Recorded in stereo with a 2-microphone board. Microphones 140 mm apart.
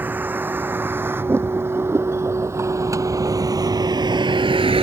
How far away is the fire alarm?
No fire alarm in this recording.